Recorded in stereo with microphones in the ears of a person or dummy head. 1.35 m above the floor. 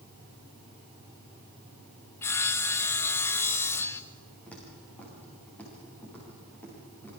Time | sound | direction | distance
2.2 | sawing | 20° left (ahead or behind) | 0.7 m
4.5 | footsteps | 10° left (ahead or behind) | 6.5 m